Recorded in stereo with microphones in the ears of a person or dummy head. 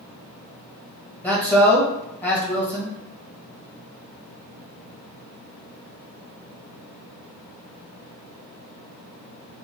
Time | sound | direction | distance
1.2 | a man speaking | 10° left (ahead or behind) | 1.3 m